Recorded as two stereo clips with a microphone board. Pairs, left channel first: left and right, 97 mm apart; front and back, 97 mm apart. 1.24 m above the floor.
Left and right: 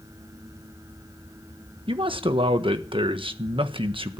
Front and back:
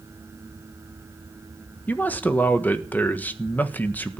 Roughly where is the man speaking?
Right.